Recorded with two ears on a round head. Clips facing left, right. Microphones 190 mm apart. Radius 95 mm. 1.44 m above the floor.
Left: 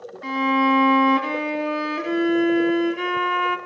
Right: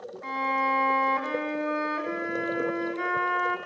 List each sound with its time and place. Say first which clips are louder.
0.2 s a violin: left 11 dB; 45° left (ahead or behind), 2 m